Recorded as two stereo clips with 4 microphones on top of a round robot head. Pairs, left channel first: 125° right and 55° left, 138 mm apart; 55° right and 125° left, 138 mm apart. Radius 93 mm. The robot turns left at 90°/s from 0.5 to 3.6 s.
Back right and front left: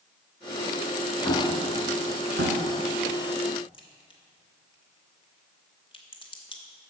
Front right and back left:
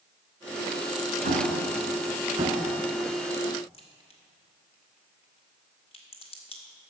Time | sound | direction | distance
1.2 | an explosion | 170° left | 1.0 m
3.7 | a crack | 85° right | 1.9 m